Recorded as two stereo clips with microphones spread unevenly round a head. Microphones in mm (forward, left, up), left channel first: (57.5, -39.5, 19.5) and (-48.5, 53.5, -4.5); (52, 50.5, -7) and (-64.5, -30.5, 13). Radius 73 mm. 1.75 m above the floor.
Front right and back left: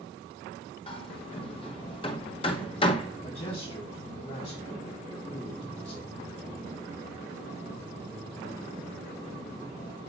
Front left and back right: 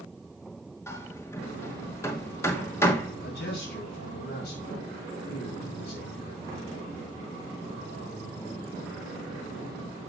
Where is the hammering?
40° right, 1.1 m.